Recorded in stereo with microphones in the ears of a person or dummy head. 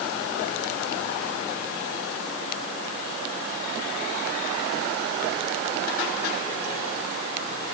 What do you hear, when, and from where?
Only background noise.